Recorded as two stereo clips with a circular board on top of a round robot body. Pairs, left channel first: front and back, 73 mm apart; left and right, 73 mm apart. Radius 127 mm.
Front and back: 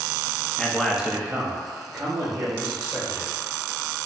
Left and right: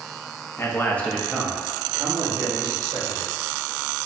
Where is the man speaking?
70° left, 0.8 m; by 3.4 s 130° right, 2 m.